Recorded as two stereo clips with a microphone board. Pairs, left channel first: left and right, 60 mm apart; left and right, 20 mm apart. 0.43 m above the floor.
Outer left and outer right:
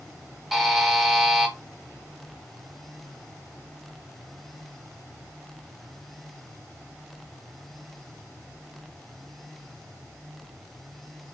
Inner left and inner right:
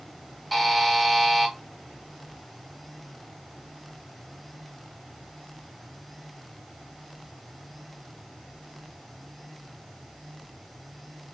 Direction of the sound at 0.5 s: 5° right (ahead or behind).